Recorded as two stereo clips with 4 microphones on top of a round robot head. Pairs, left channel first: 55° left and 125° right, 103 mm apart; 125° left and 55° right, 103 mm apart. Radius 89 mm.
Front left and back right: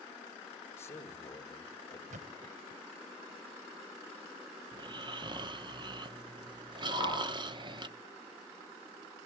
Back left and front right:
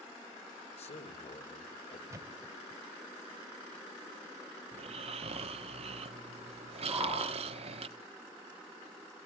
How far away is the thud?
About 1.0 m.